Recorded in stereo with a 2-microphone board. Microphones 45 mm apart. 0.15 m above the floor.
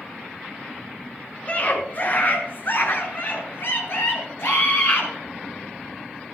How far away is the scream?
About 2.5 m.